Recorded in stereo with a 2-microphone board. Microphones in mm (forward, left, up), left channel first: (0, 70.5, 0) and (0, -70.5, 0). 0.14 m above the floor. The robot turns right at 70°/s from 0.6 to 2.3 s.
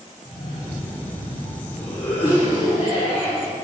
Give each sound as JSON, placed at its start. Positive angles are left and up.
{"t": 0.2, "sound": "a cough", "azimuth_deg": 15, "distance_m": 3.0}